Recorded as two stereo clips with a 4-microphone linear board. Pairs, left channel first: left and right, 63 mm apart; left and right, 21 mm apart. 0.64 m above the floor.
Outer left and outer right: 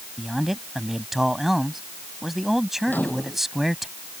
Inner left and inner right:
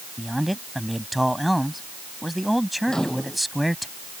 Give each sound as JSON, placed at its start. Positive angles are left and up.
{"t": 0.2, "sound": "a man speaking", "side_deg": -5}
{"t": 2.9, "sound": "a microwave", "side_deg": 30}